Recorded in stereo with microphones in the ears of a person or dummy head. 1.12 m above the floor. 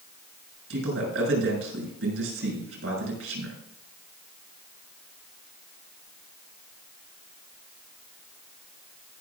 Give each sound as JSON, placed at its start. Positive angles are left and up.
{"t": 0.7, "sound": "a man speaking", "side_deg": -85, "distance_m": 7.0}